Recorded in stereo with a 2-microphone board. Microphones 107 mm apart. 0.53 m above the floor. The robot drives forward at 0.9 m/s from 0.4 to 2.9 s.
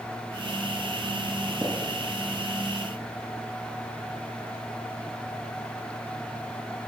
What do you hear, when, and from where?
1.6 s tapping: 25° right (ahead or behind), 9 m; by 1.7 s 20° right (ahead or behind), 9 m